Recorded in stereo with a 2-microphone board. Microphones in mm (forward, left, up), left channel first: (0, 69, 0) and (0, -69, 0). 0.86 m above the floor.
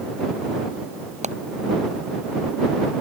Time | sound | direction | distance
1.2 | hammering | 60° right (ahead or behind) | ?